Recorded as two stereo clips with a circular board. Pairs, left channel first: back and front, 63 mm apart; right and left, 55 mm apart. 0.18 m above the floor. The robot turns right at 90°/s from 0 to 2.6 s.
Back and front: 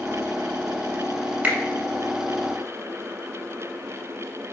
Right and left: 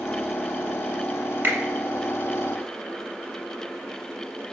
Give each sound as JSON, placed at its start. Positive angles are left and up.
{"t": 1.4, "sound": "a finger snap", "azimuth_deg": 55, "distance_m": 1.1}